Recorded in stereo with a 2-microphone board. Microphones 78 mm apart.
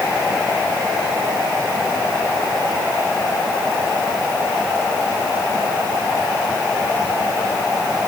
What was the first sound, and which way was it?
Only background noise.